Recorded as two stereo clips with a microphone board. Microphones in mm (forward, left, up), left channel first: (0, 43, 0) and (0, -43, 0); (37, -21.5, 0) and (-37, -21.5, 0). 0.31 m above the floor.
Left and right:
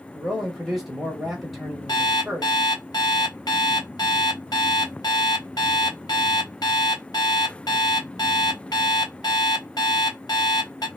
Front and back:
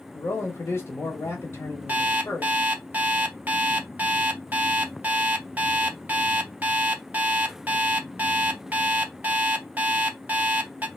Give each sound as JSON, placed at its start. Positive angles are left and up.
{"t": 0.1, "sound": "a man speaking", "azimuth_deg": -5, "distance_m": 1.0}
{"t": 1.9, "sound": "an alarm clock", "azimuth_deg": 115, "distance_m": 0.6}